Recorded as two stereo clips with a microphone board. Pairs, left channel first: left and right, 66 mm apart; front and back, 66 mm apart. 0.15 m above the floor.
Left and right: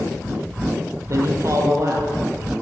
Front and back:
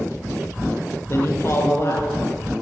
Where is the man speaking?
50° right, 3.5 m.